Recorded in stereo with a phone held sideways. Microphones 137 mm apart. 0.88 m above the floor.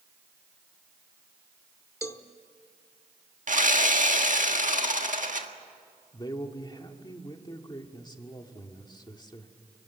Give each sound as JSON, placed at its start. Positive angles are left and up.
{"t": 2.0, "sound": "a cowbell", "side_deg": 20, "distance_m": 1.0}
{"t": 3.5, "sound": "sawing", "side_deg": -70, "distance_m": 1.5}
{"t": 6.1, "sound": "a man speaking", "side_deg": 30, "distance_m": 1.8}